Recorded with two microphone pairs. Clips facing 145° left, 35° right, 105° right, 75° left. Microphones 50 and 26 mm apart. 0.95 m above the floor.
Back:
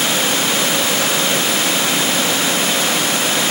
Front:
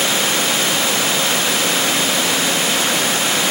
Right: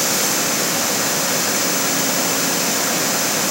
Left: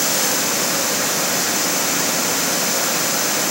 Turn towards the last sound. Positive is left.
No sound to turn to.